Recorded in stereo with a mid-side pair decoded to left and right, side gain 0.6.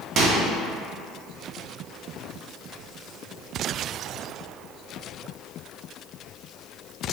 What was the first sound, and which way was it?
A microwave, 50° right.